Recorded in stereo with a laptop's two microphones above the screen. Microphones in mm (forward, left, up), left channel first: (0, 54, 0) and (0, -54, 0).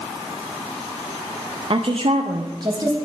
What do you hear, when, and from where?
1.7 s a woman speaking: 50° right (ahead or behind), 0.6 m; by 3.0 s 25° right (ahead or behind), 0.9 m